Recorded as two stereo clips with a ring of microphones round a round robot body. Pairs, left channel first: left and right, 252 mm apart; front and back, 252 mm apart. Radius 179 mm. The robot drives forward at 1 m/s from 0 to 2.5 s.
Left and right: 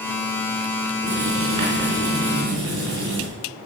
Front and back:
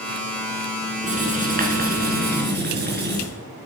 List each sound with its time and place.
1.0 s writing: 120° right, 5.5 m; by 3.2 s 130° right, 6.5 m